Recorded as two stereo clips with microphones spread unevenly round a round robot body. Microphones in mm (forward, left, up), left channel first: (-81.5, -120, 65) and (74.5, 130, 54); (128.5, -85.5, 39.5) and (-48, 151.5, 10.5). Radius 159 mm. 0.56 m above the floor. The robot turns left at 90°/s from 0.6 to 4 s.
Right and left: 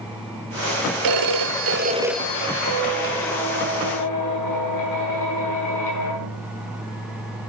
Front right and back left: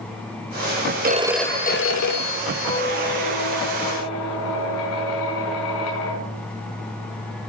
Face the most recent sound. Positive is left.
turn(degrees=-100)